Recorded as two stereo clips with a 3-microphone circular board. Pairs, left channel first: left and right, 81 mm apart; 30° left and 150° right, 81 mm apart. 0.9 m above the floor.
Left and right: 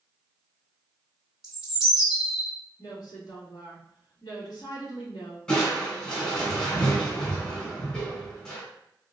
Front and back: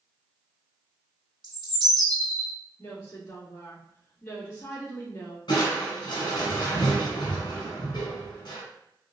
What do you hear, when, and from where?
1.4 s a bird: 175° right, 1.3 m
2.8 s a woman speaking: 55° left, 2 m
5.5 s crushing: 10° left, 1.7 m